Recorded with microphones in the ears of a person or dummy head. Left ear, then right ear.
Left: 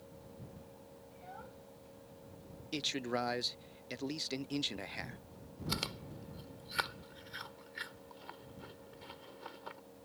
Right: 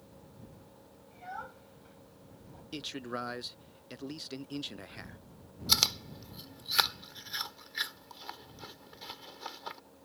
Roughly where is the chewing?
Right.